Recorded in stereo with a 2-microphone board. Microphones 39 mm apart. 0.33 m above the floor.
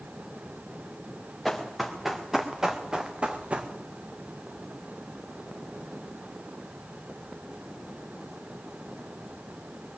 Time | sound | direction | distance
1.4 | running footsteps | 5° left (ahead or behind) | 2.0 m